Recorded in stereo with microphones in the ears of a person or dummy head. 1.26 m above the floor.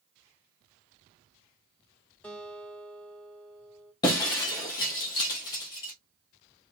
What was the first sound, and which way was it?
A guitar, 5° left (ahead or behind).